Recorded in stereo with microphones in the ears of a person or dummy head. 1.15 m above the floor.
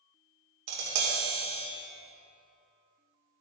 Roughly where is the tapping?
Right.